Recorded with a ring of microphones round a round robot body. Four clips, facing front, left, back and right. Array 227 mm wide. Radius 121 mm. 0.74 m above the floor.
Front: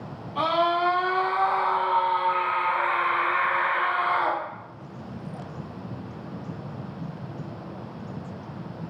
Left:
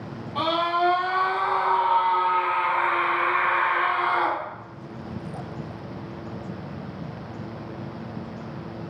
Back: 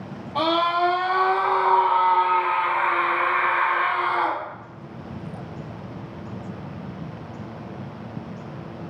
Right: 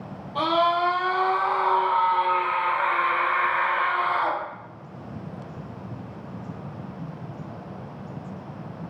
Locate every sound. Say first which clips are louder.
0.3 s a scream: right 2 dB, back 2 dB; 175° right, 3 m; by 4.4 s 120° left, 2.5 m